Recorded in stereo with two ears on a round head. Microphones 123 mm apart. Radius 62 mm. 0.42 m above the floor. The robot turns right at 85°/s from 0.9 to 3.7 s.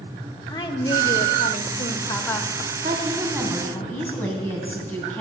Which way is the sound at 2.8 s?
60° right.